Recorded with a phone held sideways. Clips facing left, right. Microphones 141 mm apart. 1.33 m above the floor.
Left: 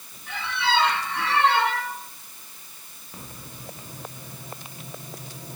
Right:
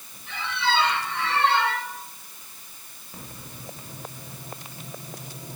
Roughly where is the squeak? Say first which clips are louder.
Even; left.